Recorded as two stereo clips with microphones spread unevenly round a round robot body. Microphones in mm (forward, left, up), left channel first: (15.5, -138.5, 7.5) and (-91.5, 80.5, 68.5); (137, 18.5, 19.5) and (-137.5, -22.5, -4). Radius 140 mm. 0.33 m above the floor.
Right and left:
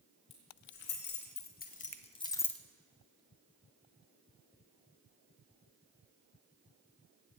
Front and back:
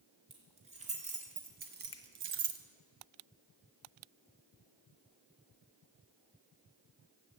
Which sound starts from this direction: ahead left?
A finger snap, at 1.9 s.